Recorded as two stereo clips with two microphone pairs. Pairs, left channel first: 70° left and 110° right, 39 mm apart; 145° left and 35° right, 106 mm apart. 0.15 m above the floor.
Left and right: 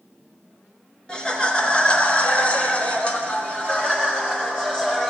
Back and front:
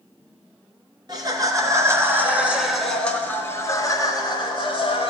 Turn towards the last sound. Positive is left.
turn(degrees=140)